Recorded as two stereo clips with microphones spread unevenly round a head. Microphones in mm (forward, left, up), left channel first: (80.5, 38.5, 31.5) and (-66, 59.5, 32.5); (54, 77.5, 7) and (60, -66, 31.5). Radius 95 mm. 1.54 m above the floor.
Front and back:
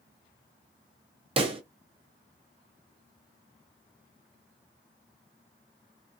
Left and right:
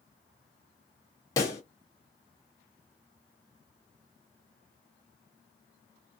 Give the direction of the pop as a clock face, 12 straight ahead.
7 o'clock.